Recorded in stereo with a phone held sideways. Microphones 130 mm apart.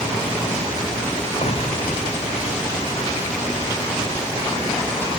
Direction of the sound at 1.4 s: 50° left (ahead or behind).